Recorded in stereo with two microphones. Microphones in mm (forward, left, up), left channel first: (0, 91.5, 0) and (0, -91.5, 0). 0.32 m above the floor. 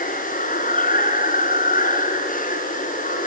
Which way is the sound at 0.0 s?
50° left (ahead or behind).